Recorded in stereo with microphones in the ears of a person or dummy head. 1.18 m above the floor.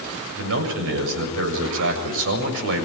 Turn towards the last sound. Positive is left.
turn(degrees=-75)  # may be behind; listen again after turning